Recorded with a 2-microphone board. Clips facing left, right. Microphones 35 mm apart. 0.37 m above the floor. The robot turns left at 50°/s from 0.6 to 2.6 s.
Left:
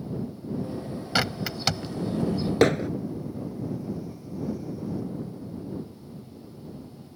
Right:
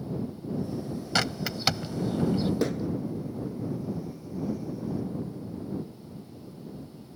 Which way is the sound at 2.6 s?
80° left.